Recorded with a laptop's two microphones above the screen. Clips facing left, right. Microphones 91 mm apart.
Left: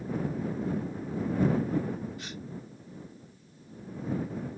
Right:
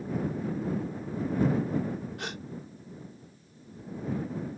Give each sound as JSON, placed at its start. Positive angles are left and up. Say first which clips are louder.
{"t": 2.2, "sound": "a gasp", "louder": "right 4 dB", "side_deg": -60}